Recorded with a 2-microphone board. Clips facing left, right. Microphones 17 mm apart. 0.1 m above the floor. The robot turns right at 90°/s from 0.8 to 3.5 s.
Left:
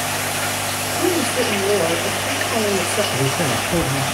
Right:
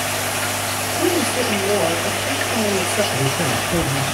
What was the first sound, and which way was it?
A woman speaking, 5° right.